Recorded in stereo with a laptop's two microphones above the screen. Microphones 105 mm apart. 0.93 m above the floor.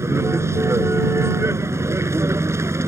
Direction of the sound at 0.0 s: 25° right (ahead or behind).